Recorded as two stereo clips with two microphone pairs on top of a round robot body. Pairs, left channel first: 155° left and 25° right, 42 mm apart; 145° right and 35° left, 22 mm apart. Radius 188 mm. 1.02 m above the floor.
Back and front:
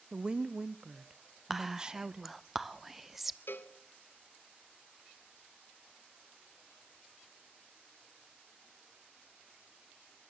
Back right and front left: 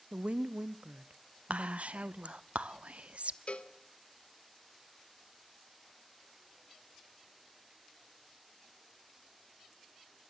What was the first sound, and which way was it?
A woman speaking, 40° left.